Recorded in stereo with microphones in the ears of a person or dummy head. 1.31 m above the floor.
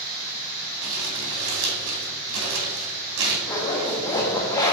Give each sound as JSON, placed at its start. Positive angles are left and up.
{"t": 0.8, "sound": "crumpling", "side_deg": -80, "distance_m": 2.5}
{"t": 3.5, "sound": "a zipper", "side_deg": 15, "distance_m": 1.4}